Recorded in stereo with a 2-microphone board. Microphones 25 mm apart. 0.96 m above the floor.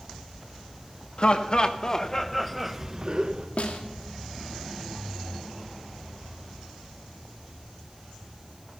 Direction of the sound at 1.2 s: 45° left (ahead or behind).